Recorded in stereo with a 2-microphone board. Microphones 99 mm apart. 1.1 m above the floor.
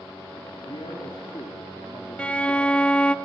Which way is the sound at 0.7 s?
55° left (ahead or behind).